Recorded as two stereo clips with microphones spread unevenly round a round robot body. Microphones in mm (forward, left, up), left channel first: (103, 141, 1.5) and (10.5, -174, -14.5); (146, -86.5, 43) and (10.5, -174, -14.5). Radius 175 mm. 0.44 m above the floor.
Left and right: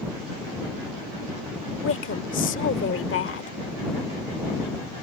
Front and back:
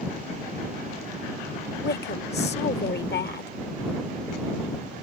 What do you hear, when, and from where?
1.8 s a woman speaking: 30° left